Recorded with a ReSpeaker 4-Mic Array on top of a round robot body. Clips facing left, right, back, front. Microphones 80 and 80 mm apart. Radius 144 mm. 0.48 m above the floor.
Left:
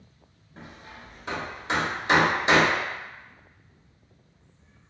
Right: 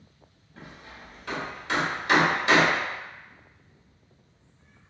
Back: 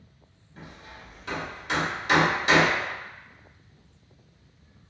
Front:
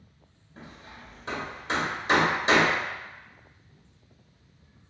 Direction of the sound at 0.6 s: 35° left.